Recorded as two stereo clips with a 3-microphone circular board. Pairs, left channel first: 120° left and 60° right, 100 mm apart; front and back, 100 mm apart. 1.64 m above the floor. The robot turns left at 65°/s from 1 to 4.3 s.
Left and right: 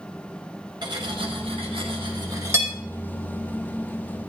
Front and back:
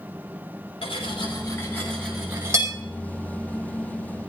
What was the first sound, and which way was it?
Cutlery clinking, 20° right.